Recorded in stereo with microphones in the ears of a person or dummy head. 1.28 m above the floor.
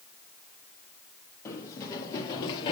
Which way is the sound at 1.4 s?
15° left (ahead or behind).